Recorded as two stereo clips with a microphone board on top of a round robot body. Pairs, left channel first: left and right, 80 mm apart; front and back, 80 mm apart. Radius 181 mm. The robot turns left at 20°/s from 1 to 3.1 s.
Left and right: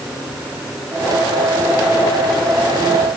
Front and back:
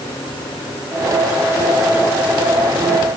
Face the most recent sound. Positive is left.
No sound to turn to.